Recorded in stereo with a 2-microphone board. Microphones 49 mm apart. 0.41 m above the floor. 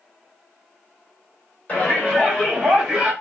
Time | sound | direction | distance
1.7 | a shout | 30° left (ahead or behind) | 1.8 m